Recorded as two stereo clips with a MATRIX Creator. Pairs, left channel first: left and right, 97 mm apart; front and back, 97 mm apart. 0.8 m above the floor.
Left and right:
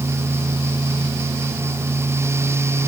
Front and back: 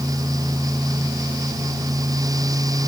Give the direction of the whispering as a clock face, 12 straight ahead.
No whispering in this recording.